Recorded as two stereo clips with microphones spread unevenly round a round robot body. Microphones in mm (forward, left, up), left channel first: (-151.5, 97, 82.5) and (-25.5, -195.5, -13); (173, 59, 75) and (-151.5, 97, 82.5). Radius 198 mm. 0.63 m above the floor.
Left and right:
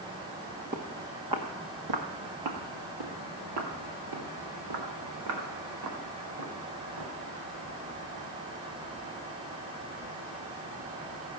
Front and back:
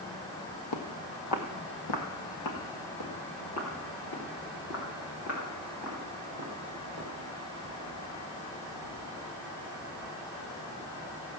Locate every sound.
0.7 s footsteps: 10° left, 1.1 m; by 7.1 s 60° right, 5.5 m